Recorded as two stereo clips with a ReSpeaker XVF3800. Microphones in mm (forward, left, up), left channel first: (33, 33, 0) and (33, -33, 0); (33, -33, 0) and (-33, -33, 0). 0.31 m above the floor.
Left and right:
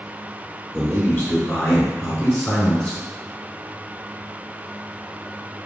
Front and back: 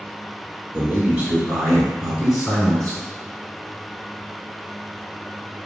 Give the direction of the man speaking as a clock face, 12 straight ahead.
7 o'clock.